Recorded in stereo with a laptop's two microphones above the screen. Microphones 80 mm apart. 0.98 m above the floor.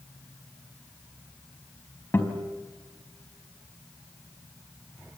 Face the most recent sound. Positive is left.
turn(degrees=25)  # may be behind; listen again after turning